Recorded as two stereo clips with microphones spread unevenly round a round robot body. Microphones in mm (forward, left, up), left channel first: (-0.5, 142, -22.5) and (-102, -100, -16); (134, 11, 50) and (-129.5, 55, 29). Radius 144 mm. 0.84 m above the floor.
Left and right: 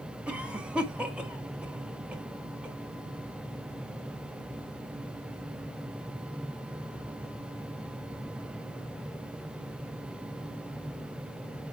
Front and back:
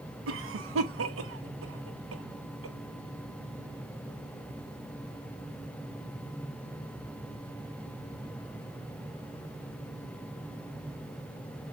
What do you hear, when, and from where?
0.3 s a cough: 160° left, 1.5 m